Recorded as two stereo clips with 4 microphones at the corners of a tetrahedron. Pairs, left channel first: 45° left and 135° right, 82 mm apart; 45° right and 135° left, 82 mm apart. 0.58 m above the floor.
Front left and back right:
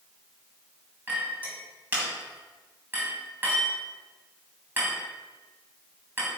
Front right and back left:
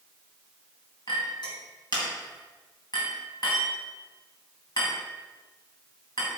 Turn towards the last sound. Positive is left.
turn(degrees=-70)